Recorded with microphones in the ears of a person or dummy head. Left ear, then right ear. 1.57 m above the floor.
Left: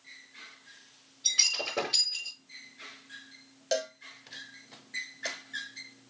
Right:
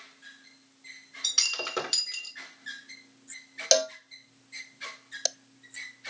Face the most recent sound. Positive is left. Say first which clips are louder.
# right 7 dB
turn(degrees=-50)  # may be behind; listen again after turning